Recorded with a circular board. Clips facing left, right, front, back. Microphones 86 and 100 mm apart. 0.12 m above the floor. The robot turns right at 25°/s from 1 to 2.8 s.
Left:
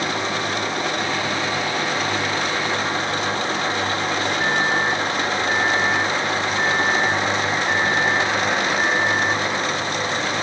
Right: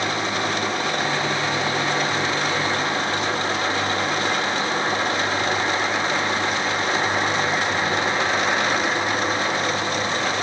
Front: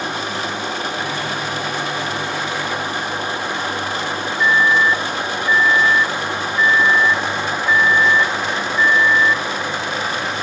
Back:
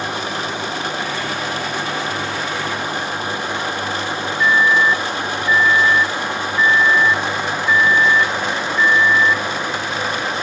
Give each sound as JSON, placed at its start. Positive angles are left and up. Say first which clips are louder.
{"t": 4.4, "sound": "a microwave", "louder": "left 3 dB, even", "azimuth_deg": 85}